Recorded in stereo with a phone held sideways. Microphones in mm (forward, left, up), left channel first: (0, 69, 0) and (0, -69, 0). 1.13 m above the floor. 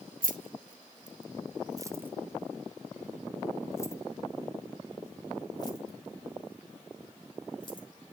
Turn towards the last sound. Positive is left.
turn(degrees=35)  # may be behind; listen again after turning